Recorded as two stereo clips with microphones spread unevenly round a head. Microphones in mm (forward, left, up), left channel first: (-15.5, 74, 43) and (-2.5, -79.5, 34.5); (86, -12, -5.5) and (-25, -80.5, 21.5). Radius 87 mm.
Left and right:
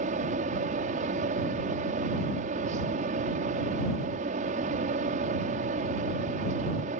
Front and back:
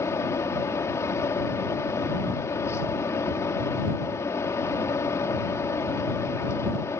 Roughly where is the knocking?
No knocking in this recording.